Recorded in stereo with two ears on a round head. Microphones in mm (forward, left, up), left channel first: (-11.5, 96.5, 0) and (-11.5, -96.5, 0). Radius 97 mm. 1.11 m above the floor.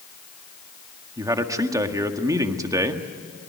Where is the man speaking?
15° right (ahead or behind), 1.6 m.